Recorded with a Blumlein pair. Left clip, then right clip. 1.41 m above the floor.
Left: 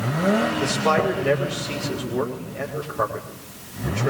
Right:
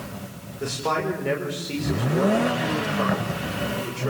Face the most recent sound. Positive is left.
turn(degrees=10)